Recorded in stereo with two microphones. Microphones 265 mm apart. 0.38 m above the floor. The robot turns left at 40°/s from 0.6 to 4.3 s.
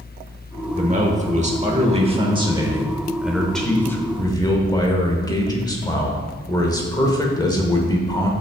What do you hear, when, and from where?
0.7 s a man speaking: 25° right (ahead or behind), 0.9 m; by 8.3 s 15° left (ahead or behind), 0.9 m